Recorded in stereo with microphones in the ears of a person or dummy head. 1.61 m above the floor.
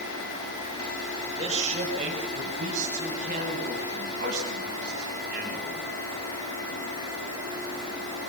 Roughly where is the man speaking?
Right.